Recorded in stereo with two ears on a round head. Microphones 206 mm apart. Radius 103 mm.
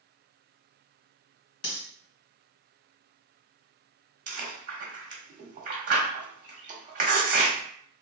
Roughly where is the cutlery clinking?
Left.